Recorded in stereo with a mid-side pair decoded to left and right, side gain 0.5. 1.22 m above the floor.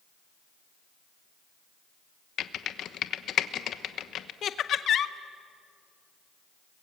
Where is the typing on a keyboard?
60° left, 1.1 m.